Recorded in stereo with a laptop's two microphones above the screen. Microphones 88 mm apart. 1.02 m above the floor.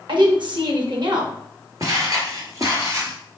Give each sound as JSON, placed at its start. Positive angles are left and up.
{"t": 0.1, "sound": "a woman speaking", "side_deg": -60, "distance_m": 1.1}
{"t": 1.8, "sound": "footsteps", "side_deg": -45, "distance_m": 1.3}